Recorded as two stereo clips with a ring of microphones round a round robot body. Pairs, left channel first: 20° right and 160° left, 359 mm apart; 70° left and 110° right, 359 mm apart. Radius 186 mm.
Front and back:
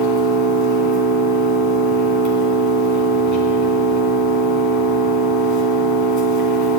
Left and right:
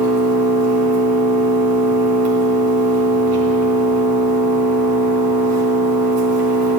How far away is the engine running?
About 2.5 m.